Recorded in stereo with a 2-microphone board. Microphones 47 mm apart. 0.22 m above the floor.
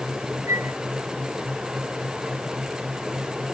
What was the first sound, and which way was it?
A flute, 75° right (ahead or behind).